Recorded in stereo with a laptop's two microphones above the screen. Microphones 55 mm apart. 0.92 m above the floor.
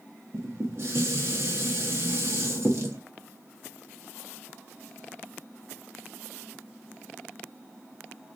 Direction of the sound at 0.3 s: 55° right (ahead or behind).